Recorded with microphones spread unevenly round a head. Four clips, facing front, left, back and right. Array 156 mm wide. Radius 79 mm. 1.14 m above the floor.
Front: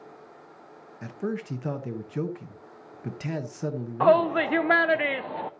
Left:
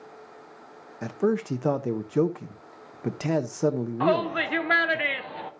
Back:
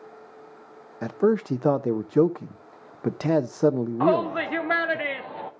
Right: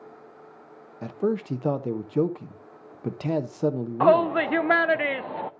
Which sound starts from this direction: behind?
A man speaking, at 1.0 s.